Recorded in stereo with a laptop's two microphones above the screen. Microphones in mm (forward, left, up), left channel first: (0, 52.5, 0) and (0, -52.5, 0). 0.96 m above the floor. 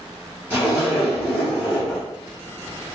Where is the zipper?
20° right (ahead or behind), 1.9 m.